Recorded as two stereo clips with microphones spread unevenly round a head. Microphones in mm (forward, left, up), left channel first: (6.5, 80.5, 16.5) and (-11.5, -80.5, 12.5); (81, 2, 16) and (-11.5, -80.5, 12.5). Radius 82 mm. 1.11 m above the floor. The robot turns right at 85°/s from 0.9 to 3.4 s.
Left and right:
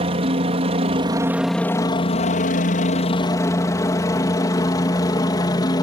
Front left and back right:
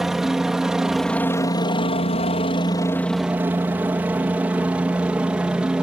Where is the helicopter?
50° right; by 5.8 s 140° left.